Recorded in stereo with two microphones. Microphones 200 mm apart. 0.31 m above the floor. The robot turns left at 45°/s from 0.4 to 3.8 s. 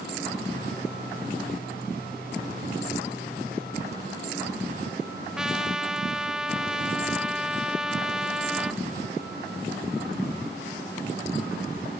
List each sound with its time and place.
5.4 s a trumpet: 5° right (ahead or behind), 0.6 m